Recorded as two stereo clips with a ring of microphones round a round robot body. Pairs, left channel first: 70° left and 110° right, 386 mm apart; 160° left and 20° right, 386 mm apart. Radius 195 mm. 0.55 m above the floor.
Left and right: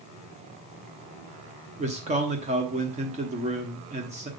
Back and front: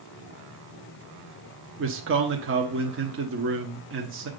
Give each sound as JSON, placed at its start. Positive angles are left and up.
{"t": 1.8, "sound": "a man speaking", "azimuth_deg": -50, "distance_m": 1.0}